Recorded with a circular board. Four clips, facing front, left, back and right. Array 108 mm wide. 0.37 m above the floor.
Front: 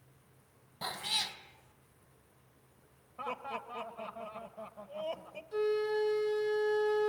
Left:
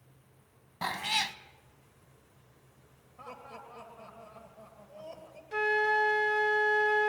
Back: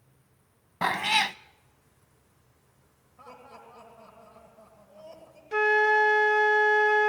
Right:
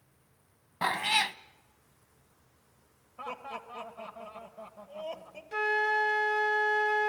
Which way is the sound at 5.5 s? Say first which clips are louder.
Left 1 dB, back 8 dB; straight behind.